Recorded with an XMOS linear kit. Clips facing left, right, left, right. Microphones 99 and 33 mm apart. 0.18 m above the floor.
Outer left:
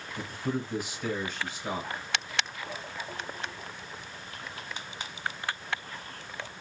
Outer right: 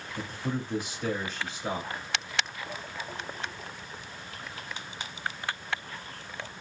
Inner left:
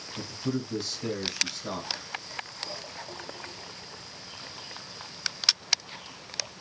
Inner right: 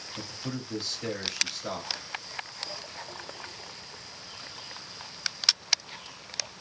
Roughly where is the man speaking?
Right.